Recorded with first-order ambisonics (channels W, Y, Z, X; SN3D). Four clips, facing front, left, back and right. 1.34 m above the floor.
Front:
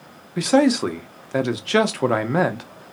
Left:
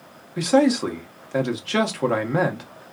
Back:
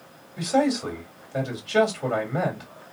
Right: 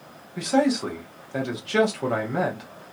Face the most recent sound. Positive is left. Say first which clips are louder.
# left 4 dB, front 6 dB
turn(degrees=15)